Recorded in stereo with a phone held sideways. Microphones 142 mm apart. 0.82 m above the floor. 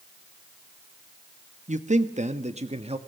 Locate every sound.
1.7 s a man speaking: 55° right (ahead or behind), 1.5 m; by 3.0 s 45° right (ahead or behind), 1.7 m